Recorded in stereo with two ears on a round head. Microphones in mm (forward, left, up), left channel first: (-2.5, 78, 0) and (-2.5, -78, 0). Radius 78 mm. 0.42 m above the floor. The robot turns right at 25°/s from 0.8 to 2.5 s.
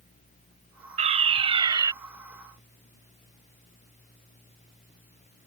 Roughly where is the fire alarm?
Right.